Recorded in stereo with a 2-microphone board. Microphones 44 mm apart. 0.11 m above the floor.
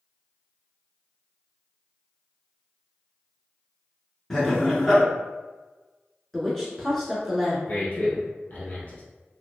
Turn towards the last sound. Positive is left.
turn(degrees=40)  # may be behind; listen again after turning